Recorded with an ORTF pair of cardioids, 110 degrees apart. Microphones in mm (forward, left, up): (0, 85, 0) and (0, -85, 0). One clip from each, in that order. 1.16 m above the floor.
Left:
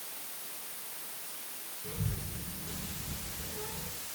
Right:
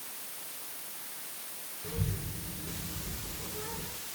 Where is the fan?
No fan in this recording.